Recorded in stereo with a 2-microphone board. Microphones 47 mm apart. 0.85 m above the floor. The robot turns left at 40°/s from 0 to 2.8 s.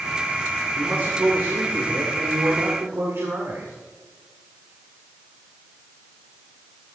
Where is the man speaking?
35° right, 2 m; by 3.7 s 115° right, 2 m.